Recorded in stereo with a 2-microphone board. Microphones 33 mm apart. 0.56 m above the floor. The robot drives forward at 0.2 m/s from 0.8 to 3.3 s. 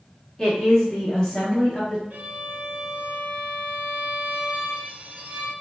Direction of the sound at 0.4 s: 20° left (ahead or behind).